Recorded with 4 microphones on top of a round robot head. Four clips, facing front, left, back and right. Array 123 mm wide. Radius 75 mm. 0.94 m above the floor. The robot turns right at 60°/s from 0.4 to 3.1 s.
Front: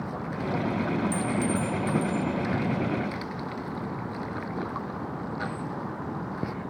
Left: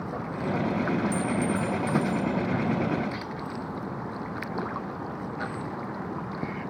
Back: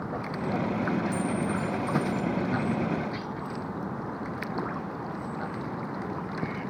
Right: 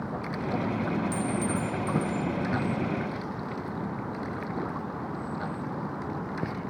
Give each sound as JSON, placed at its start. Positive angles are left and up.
{"t": 1.1, "sound": "a clink", "azimuth_deg": -30, "distance_m": 1.5}